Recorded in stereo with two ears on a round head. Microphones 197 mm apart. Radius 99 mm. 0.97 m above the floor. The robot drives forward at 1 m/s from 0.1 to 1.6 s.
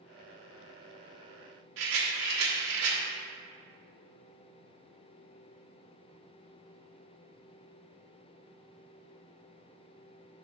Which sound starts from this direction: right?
A rattle, at 1.8 s.